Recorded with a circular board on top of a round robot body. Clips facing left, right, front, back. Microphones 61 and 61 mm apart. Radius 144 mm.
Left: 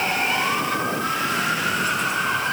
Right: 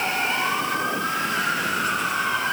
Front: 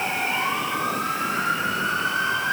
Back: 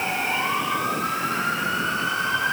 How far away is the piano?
No piano in this recording.